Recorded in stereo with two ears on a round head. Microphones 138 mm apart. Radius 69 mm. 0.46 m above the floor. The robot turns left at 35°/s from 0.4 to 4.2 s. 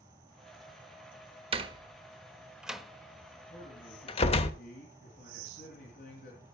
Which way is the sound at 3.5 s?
35° left (ahead or behind).